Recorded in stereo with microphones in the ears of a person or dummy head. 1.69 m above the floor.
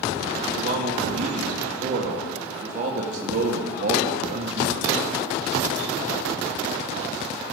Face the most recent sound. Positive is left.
turn(degrees=-50)  # may be behind; listen again after turning